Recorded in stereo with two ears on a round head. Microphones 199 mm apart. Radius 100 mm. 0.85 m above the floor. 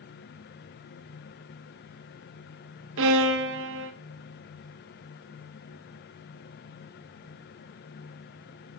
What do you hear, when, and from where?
3.0 s a violin: 70° right (ahead or behind), 0.8 m